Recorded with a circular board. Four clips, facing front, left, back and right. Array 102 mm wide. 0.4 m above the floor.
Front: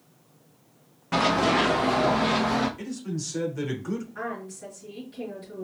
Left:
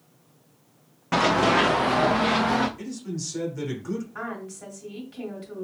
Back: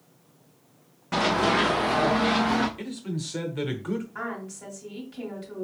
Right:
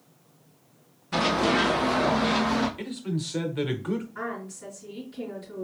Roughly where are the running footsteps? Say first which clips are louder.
Left 3 dB, front 1 dB; left.